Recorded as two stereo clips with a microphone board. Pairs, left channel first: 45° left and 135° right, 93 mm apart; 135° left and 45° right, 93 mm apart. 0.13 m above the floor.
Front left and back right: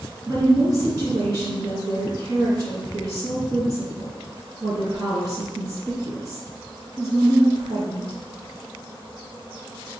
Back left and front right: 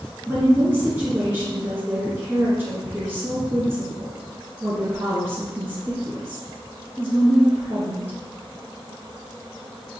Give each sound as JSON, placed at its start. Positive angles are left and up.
{"t": 0.3, "sound": "a woman speaking", "azimuth_deg": -100, "distance_m": 1.8}